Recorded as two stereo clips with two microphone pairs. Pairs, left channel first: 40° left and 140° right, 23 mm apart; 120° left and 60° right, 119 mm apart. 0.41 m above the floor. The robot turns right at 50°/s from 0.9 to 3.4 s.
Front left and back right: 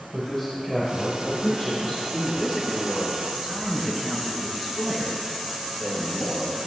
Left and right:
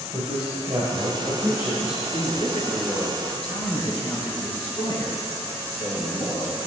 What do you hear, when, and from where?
0.1 s a man speaking: 35° right, 2 m; by 2.0 s 25° left, 2 m
2.1 s a man speaking: 85° left, 5 m; by 6.6 s 150° left, 5 m